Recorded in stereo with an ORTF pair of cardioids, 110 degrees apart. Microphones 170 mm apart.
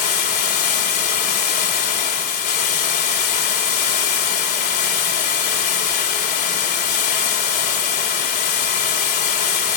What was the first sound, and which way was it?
Running water, 65° left.